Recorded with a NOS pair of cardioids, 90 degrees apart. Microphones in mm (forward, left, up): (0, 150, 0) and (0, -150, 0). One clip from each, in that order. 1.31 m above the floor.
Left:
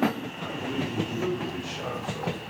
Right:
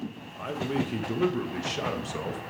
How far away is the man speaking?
About 1.4 m.